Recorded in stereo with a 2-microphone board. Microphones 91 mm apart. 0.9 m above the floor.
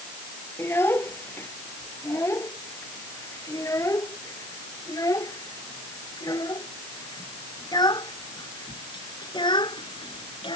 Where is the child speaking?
25° left (ahead or behind); by 10.6 s 60° left (ahead or behind).